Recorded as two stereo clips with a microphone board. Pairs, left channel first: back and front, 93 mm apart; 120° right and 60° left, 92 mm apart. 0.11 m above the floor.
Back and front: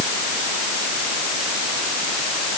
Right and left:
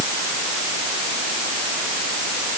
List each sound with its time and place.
Only background noise.